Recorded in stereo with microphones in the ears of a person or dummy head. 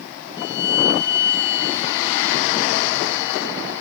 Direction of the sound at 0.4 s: 65° left (ahead or behind).